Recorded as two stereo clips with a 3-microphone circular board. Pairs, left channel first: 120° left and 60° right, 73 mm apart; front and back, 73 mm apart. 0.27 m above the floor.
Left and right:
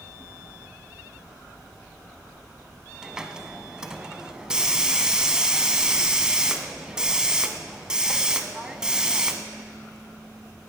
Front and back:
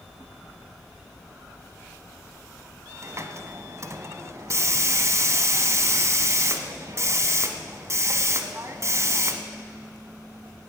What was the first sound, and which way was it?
A hiss, 140° right.